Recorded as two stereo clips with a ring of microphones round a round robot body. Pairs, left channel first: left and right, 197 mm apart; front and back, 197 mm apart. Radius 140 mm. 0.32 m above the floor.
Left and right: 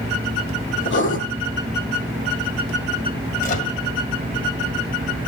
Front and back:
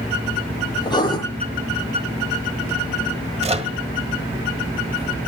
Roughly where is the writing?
Left.